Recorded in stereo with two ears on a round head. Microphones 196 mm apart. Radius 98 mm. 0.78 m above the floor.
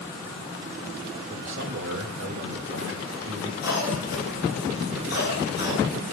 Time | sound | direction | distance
1.3 | a man speaking | 60° right (ahead or behind) | 2.5 m
3.6 | a cough | 50° left (ahead or behind) | 5 m